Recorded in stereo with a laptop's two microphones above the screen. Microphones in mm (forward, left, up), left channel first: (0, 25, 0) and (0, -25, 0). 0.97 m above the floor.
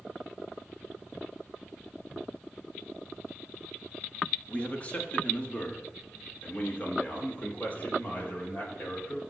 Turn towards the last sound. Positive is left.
turn(degrees=40)  # may be behind; listen again after turning